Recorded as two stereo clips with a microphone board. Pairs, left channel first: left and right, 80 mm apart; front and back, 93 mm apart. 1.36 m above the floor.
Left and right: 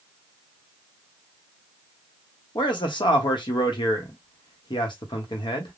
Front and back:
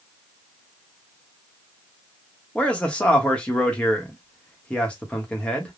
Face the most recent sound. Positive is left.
turn(degrees=75)